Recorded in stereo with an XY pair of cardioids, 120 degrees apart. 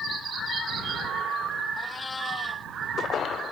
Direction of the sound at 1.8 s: 25° left.